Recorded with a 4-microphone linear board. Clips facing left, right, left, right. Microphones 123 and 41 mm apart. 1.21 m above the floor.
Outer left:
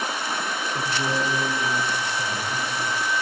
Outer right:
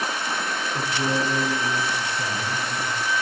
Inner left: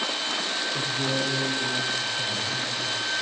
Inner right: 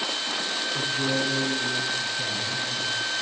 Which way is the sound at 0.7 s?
5° right (ahead or behind).